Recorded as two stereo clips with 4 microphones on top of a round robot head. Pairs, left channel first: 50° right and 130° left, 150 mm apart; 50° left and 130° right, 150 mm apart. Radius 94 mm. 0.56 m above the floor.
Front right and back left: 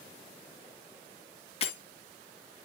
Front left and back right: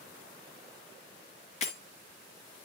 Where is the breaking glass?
5° left, 1.9 m.